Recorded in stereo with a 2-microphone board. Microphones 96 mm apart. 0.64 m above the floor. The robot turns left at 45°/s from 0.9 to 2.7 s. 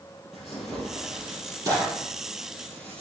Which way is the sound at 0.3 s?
Centre (ahead or behind).